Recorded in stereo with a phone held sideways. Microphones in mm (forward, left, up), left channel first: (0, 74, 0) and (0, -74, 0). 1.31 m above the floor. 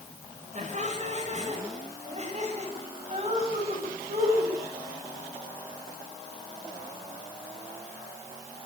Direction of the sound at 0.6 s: 50° right (ahead or behind).